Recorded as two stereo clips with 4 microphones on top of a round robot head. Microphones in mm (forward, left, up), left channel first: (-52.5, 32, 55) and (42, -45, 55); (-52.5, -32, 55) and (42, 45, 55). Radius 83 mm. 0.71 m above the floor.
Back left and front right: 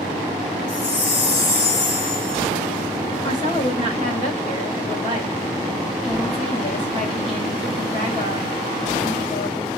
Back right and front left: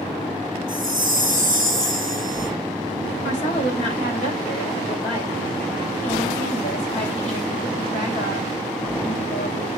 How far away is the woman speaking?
About 5 m.